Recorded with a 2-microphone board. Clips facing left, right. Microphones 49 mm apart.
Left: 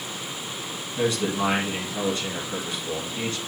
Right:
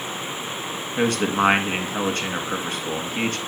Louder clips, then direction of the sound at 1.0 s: Right 4 dB; 55° right (ahead or behind).